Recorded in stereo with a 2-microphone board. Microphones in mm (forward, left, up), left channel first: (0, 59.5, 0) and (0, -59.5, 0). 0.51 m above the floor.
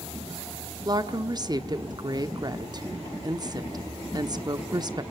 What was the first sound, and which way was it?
A woman speaking, 35° right (ahead or behind).